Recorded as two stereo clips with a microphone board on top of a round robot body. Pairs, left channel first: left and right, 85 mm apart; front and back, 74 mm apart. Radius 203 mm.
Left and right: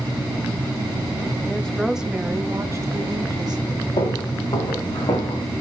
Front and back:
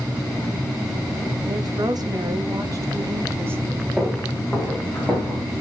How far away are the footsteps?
About 4.5 m.